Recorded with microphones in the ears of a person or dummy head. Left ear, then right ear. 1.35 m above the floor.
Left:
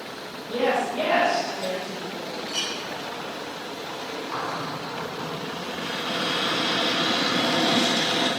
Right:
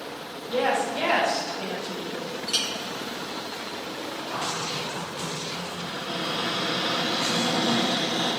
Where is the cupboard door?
90° left, 2.5 m.